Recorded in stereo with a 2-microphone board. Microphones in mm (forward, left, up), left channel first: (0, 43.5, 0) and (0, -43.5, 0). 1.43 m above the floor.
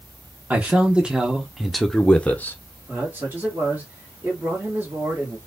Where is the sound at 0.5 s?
15° right (ahead or behind), 1.6 m; by 2.6 s 30° left (ahead or behind), 0.7 m.